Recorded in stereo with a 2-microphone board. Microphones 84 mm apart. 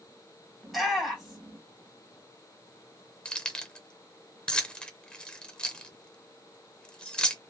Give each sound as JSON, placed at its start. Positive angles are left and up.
{"t": 0.6, "sound": "a shout", "side_deg": 0, "distance_m": 2.5}
{"t": 3.2, "sound": "keys jangling", "side_deg": 10, "distance_m": 0.7}